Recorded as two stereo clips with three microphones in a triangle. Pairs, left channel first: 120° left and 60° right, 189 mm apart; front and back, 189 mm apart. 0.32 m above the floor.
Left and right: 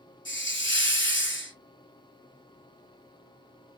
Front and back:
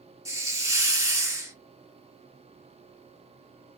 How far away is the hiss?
About 0.9 m.